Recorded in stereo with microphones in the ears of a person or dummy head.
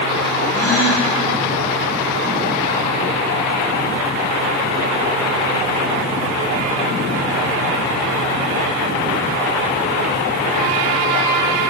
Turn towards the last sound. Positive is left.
turn(degrees=15)  # may be behind; listen again after turning